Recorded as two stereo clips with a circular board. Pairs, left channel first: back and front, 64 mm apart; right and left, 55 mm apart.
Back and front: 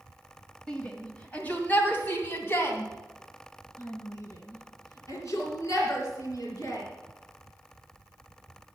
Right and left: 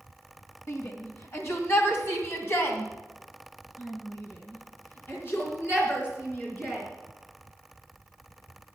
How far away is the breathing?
No breathing in this recording.